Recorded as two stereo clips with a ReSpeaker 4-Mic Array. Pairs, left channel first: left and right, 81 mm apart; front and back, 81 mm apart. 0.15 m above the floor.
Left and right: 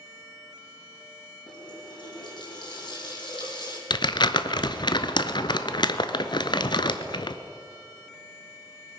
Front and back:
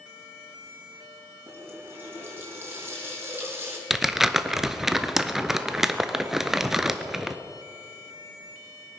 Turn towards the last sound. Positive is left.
turn(degrees=95)